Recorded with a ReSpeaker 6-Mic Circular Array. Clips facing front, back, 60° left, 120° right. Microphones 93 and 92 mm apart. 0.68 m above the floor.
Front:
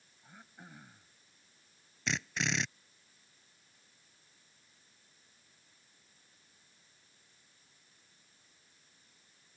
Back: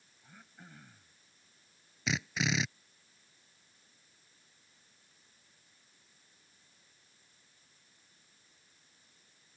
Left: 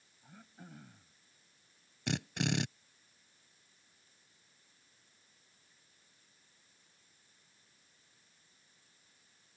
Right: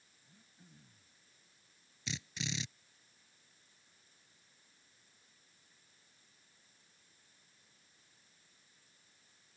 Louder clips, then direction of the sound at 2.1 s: Back 2 dB, left 9 dB; 95° left.